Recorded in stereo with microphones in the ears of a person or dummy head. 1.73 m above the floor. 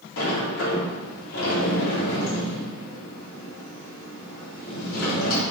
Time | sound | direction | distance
0.2 | a sliding door | 80° left | 3.5 m